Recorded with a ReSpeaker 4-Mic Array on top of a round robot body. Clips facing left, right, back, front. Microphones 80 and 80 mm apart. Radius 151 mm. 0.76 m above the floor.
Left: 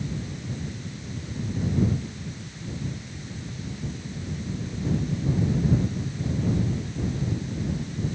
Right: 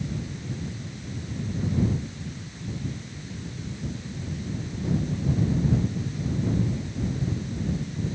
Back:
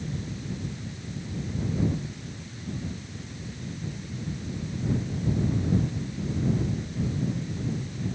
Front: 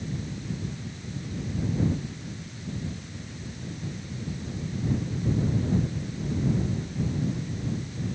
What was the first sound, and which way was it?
Only background noise.